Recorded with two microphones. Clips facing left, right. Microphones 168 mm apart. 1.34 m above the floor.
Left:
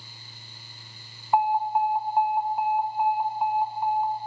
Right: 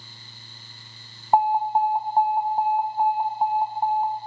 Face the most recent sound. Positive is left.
turn(degrees=-35)  # may be behind; listen again after turning